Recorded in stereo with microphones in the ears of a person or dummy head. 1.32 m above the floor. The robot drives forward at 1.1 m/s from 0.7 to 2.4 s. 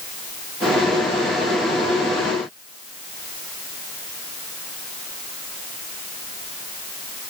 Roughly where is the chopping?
No chopping in this recording.